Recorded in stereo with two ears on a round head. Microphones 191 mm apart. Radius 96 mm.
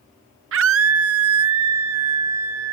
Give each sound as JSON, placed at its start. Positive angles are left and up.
{"t": 0.5, "sound": "a scream", "side_deg": -60}